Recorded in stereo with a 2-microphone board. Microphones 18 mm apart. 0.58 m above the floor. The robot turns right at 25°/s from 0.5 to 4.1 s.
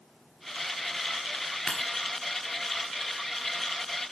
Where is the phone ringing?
I don't hear a phone ringing.